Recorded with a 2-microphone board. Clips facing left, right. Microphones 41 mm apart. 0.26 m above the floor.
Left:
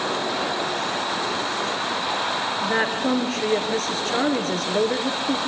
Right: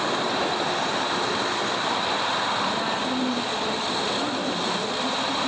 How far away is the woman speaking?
About 4 m.